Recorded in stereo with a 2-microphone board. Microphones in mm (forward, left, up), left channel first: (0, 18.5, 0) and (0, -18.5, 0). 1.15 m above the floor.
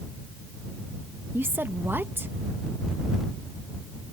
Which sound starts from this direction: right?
A woman speaking, at 1.3 s.